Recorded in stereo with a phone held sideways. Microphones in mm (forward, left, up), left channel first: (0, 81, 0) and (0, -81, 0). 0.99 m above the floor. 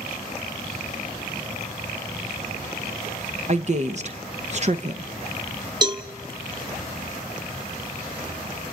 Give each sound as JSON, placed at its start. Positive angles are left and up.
{"t": 3.5, "sound": "a woman speaking", "side_deg": -45, "distance_m": 0.8}
{"t": 5.8, "sound": "a cowbell", "side_deg": -25, "distance_m": 1.1}